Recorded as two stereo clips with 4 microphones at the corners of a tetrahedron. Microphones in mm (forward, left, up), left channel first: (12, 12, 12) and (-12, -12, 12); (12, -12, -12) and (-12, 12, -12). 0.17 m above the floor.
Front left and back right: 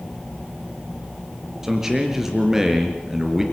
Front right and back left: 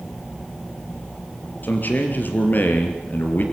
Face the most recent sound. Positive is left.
turn(degrees=-60)